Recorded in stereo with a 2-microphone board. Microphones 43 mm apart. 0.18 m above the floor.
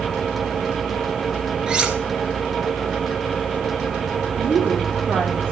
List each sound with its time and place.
1.7 s cutlery clinking: 20° right (ahead or behind), 1.5 m
4.4 s a woman speaking: 50° right (ahead or behind), 4.5 m